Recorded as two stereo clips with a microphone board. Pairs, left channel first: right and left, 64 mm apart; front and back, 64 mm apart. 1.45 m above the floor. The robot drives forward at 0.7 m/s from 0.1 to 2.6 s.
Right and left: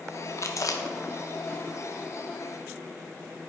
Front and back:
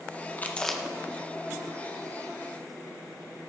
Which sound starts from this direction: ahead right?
Chewing, at 0.4 s.